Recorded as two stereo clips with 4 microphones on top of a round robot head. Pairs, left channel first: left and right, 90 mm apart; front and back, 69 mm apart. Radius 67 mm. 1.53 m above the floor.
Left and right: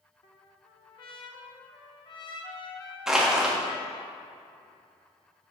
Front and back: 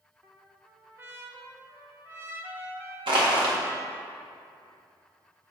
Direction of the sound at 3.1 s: 175° right.